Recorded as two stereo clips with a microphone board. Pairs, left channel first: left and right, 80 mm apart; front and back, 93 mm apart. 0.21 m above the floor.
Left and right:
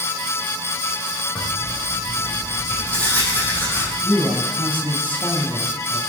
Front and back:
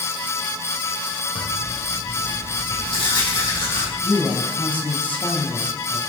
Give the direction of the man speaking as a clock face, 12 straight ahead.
10 o'clock.